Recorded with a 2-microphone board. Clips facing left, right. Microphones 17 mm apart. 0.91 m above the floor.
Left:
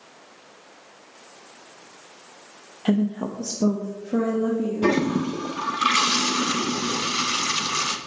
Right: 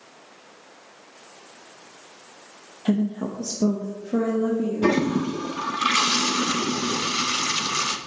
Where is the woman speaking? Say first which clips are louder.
Left 1 dB; 50° left (ahead or behind), 0.7 m; by 5.0 s 5° left (ahead or behind), 1.6 m.